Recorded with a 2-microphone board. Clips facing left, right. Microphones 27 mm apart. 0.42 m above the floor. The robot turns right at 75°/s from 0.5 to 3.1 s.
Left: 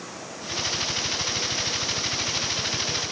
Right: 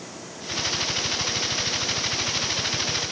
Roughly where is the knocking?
I don't hear knocking.